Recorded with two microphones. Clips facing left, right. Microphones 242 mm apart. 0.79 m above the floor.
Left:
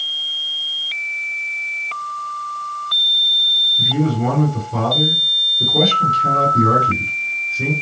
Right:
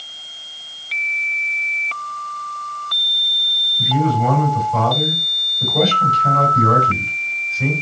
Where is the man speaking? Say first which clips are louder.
Left 1 dB; 65° left (ahead or behind), 3 m.